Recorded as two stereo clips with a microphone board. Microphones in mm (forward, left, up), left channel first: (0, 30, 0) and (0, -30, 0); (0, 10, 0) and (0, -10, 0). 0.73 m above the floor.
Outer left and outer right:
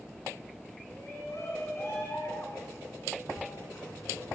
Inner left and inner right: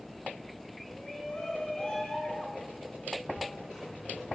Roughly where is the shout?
Left.